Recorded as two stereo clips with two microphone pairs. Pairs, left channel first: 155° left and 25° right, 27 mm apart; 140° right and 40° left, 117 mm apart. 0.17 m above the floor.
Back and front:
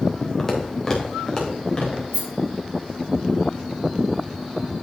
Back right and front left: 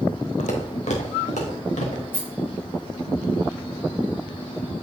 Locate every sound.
0.4 s footsteps: 125° right, 2.5 m; by 2.0 s 140° right, 3.5 m
2.1 s a rattle: 65° right, 4.5 m